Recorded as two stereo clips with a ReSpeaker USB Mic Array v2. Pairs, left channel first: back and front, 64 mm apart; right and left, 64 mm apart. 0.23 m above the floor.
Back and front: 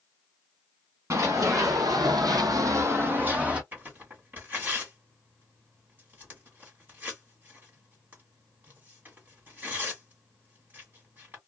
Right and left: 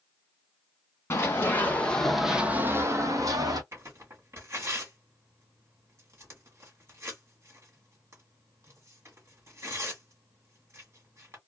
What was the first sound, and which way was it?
Running footsteps, 40° right.